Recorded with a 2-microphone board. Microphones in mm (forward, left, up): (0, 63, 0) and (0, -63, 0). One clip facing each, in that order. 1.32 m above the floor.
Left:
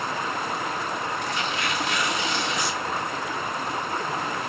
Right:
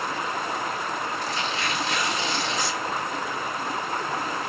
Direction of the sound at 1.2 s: 30° right (ahead or behind).